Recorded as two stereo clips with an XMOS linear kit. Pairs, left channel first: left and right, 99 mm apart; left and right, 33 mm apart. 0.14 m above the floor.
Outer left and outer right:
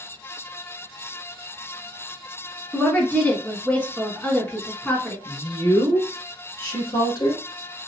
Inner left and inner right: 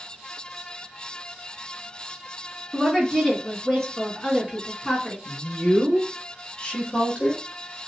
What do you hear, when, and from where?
2.7 s a woman speaking: 15° left (ahead or behind), 1.1 m
5.2 s a woman speaking: 40° left (ahead or behind), 1.4 m